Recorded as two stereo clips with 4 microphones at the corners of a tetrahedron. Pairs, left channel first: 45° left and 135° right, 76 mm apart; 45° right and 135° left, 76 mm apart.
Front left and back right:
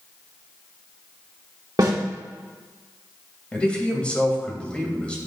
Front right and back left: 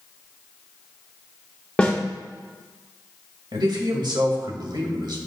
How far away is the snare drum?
About 1.4 m.